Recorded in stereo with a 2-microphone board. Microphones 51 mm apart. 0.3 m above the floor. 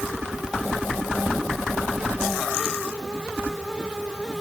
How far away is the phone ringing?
No phone ringing in this recording.